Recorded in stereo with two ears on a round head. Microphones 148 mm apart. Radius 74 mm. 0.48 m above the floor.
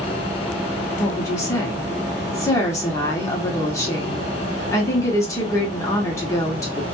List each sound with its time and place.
1.0 s a woman speaking: 20° left (ahead or behind), 0.8 m